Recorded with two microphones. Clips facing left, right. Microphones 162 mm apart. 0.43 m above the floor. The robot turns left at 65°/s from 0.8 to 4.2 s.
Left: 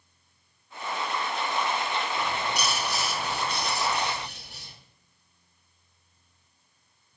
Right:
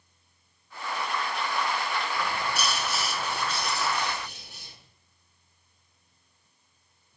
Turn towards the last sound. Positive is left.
turn(degrees=75)